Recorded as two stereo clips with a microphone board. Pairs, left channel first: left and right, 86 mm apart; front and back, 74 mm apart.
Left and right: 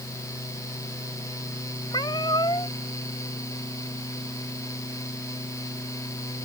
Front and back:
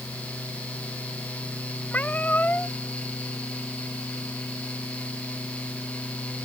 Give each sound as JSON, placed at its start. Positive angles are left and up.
{"t": 1.9, "sound": "a cat meowing", "azimuth_deg": 65}